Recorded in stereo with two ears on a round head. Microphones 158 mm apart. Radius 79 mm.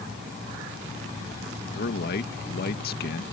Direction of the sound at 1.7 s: 55° left (ahead or behind).